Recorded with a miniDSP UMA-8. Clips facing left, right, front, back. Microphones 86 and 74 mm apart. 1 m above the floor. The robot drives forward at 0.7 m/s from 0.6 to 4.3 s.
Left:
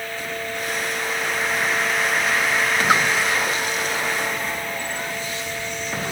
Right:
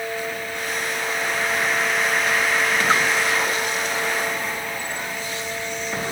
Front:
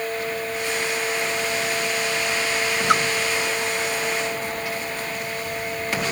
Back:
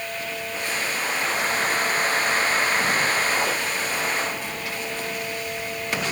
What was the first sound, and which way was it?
A splash, 10° left.